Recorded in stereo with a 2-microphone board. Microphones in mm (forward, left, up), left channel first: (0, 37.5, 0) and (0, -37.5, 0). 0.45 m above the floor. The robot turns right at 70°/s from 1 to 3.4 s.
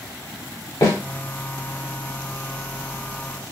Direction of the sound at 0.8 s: 65° left (ahead or behind).